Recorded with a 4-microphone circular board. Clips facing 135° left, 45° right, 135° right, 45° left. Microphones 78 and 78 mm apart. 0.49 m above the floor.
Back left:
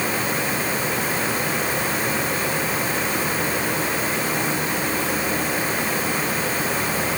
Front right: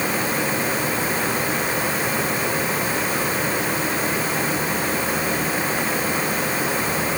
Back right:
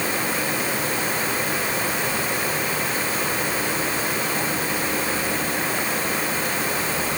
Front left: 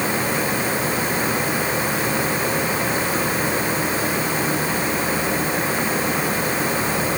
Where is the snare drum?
No snare drum in this recording.